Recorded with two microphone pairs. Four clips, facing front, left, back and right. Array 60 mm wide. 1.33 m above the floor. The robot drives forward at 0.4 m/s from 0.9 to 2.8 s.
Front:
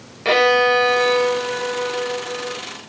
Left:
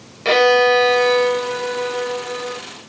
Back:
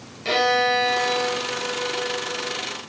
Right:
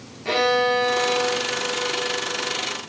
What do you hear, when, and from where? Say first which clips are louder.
0.2 s a violin: left 7 dB, front 5 dB; 35° left, 1.3 m; by 2.6 s 65° left, 0.8 m